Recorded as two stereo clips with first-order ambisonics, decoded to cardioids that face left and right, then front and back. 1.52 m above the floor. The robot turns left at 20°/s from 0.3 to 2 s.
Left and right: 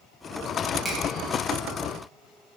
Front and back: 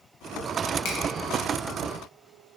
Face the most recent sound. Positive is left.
turn(degrees=-25)